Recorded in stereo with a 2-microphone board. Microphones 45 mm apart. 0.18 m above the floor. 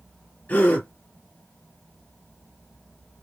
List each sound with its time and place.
0.5 s a gasp: 40° left (ahead or behind), 3.5 m